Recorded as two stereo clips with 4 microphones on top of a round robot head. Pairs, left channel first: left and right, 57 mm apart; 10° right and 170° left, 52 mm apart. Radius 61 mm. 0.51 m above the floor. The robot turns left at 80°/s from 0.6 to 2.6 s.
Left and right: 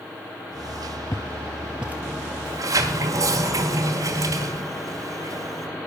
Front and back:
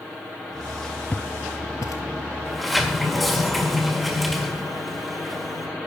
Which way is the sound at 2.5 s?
90° right.